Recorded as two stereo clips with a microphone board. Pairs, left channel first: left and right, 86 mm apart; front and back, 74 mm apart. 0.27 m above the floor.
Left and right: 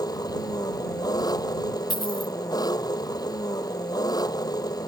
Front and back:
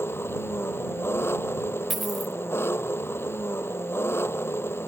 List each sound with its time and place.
0.0 s an engine running: 55° left
1.9 s a dropped coin: 90° left